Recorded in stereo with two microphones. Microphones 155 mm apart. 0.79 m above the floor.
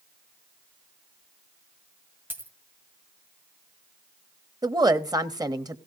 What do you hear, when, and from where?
2.3 s a dropped coin: 15° right (ahead or behind), 1.8 m
4.6 s a woman speaking: 25° right (ahead or behind), 0.8 m